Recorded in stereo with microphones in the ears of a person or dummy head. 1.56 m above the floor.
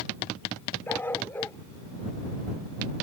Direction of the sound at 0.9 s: 15° left (ahead or behind).